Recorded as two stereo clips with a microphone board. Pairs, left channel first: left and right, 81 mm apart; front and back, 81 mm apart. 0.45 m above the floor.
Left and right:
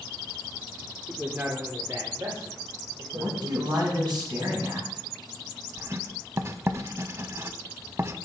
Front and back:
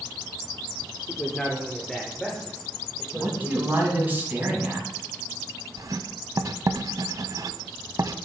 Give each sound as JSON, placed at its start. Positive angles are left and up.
{"t": 1.1, "sound": "a man speaking", "azimuth_deg": -50, "distance_m": 0.9}
{"t": 3.1, "sound": "a man speaking", "azimuth_deg": -115, "distance_m": 3.0}
{"t": 5.8, "sound": "writing", "azimuth_deg": -145, "distance_m": 0.5}